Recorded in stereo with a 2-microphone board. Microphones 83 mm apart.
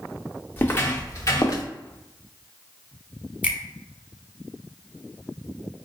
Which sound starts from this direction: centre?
A finger snap, at 3.4 s.